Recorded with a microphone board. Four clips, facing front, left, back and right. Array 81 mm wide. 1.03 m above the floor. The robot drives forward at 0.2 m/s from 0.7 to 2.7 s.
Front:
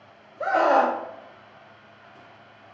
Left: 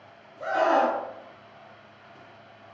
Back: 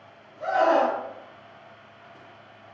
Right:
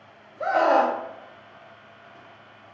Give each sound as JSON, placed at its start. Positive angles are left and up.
{"t": 0.4, "sound": "a scream", "azimuth_deg": -35, "distance_m": 0.8}